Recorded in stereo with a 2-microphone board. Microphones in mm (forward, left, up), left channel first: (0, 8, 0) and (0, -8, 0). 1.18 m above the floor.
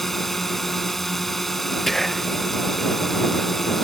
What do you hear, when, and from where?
0.0 s a drone: 20° left (ahead or behind)
1.9 s whispering: 10° left (ahead or behind)